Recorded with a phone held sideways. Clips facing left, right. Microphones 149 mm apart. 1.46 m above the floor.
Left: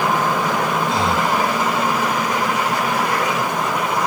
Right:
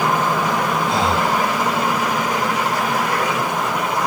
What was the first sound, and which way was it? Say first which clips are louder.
Breathing: even; 60° right (ahead or behind).